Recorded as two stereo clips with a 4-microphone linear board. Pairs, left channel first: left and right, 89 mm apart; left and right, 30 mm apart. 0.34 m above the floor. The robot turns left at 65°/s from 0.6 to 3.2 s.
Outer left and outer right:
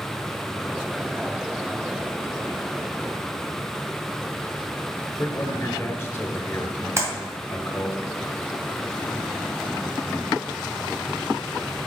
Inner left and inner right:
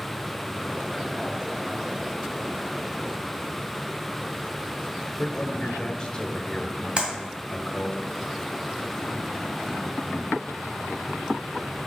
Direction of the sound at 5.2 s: 30° left (ahead or behind).